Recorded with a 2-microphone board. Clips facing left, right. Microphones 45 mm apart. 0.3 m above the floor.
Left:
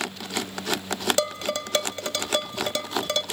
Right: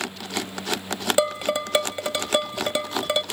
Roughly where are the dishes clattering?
Centre.